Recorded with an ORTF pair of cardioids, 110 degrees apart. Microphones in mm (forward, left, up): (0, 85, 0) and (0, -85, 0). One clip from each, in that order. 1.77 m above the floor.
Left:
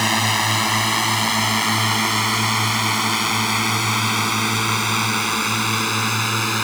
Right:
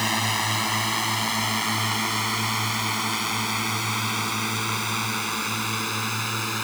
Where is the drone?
30° left; by 6.7 s 40° left.